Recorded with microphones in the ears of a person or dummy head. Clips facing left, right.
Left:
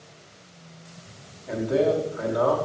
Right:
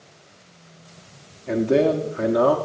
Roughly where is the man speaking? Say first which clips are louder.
Right 4 dB; right.